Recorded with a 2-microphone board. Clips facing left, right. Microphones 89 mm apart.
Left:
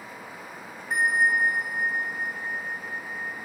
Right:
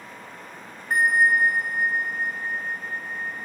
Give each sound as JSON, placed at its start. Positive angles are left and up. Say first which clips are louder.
{"t": 0.9, "sound": "a bell", "louder": "right 3 dB", "side_deg": -50, "distance_m": 0.7}